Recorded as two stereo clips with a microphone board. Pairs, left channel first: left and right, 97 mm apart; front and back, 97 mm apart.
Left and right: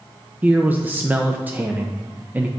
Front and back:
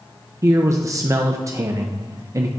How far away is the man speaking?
About 0.5 m.